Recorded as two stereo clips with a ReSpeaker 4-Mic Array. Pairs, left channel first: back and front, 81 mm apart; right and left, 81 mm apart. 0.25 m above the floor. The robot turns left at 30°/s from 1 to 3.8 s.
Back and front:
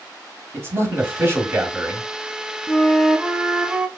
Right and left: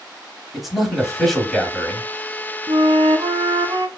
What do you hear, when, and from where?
0.5 s a man speaking: 5° left, 1.2 m; by 2.1 s 30° right, 1.2 m
2.7 s a flute: 105° left, 0.6 m; by 3.9 s 70° left, 0.6 m